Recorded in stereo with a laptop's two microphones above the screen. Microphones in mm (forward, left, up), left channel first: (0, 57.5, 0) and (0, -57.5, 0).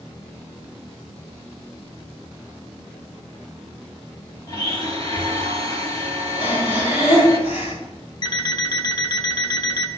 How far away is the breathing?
About 4 m.